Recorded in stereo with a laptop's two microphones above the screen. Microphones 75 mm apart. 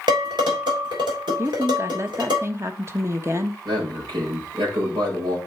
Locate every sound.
0.1 s dishes clattering: 75° right (ahead or behind), 3 m
1.4 s a woman speaking: 40° right (ahead or behind), 1.1 m
3.6 s a man speaking: 85° right, 4.5 m